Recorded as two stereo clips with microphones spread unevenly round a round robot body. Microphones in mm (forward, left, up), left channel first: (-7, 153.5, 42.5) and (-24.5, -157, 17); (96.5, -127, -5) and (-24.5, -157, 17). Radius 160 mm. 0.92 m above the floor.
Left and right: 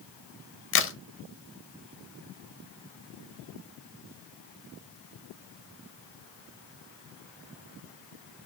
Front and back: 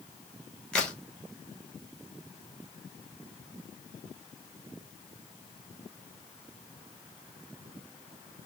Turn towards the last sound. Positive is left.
turn(degrees=80)